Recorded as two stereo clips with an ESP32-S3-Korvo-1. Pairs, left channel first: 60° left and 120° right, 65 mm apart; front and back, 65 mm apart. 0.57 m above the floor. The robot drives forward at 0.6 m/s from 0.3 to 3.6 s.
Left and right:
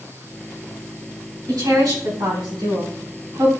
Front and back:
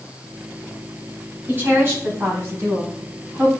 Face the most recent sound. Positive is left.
turn(degrees=-135)